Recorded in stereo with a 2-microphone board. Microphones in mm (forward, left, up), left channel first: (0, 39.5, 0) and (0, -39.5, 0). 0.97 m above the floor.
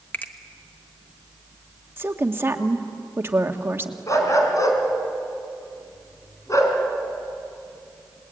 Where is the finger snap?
25° left (ahead or behind), 1.3 m.